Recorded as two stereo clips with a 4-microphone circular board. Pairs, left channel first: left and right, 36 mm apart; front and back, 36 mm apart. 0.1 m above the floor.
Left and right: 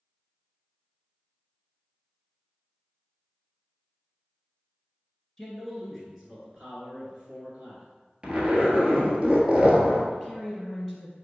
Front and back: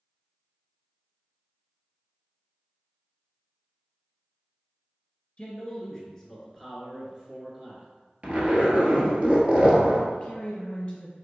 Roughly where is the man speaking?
Ahead.